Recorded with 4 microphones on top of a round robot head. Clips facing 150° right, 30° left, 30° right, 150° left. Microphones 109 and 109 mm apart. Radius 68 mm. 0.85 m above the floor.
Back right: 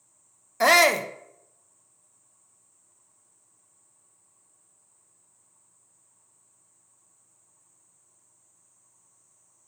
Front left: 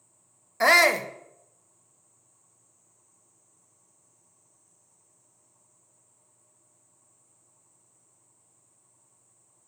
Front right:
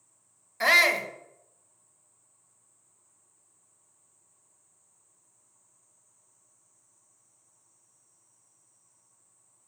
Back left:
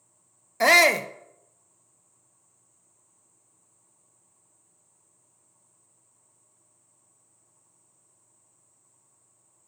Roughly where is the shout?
Behind left.